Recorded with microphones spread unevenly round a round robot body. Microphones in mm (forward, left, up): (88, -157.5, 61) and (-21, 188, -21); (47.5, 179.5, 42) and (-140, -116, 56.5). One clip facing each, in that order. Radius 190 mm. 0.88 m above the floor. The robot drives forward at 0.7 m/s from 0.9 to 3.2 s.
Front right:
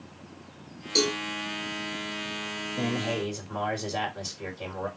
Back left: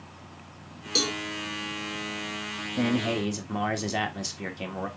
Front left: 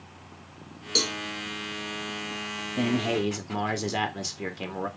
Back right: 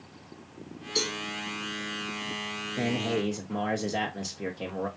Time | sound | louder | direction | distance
0.9 | a cowbell | front right 4 dB, front left 1 dB | 25° left | 1.7 m
2.8 | a man speaking | back left 4 dB, front left 3 dB | 110° left | 1.4 m